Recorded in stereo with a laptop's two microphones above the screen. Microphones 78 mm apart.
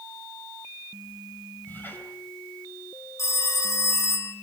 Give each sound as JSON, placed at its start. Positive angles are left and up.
{"t": 1.7, "sound": "a squeak", "side_deg": 25, "distance_m": 3.0}
{"t": 3.2, "sound": "a phone ringing", "side_deg": 40, "distance_m": 1.6}